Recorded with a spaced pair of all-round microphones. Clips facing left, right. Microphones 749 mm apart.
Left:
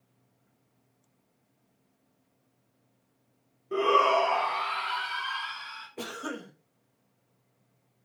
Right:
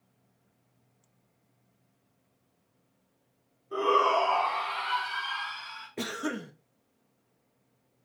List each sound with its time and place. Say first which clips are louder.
3.7 s a shout: left 2 dB; 55° left (ahead or behind), 0.6 m; by 5.9 s 25° left (ahead or behind), 1.7 m
6.0 s a cough: right 4 dB; 50° right (ahead or behind), 0.7 m